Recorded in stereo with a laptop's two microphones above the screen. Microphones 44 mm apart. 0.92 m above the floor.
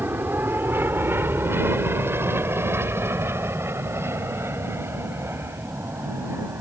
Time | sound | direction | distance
0.0 | an aircraft | 50° right (ahead or behind) | ?